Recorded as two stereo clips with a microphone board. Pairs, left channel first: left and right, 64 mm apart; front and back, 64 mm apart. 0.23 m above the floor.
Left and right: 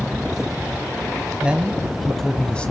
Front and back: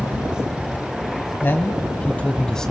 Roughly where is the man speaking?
Ahead right.